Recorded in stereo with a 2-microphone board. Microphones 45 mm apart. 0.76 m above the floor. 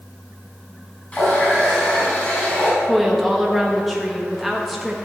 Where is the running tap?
30° left (ahead or behind), 4 m.